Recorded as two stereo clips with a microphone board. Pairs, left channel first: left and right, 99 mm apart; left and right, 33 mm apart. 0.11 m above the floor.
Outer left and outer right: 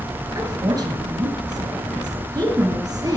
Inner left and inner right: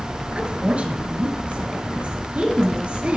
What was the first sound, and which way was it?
A woman speaking, 40° right (ahead or behind).